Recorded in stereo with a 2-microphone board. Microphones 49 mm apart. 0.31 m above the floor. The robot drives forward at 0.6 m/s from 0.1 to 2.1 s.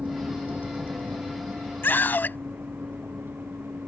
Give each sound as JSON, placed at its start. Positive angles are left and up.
{"t": 0.0, "sound": "a vehicle", "side_deg": -25}
{"t": 1.8, "sound": "a scream", "side_deg": 45}